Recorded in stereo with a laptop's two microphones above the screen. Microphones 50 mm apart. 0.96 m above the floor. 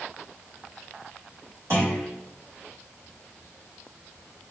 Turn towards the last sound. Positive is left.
turn(degrees=-70)  # may be behind; listen again after turning